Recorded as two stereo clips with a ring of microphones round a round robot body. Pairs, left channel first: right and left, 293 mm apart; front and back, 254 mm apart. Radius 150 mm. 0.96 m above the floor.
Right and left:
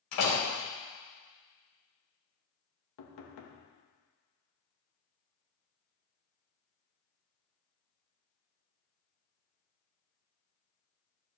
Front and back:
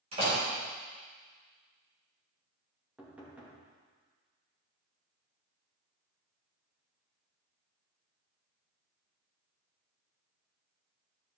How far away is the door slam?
About 3.5 m.